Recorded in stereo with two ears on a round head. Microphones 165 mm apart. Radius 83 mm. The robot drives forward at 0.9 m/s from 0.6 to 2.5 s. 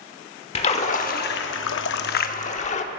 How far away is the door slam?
I don't hear a door slam.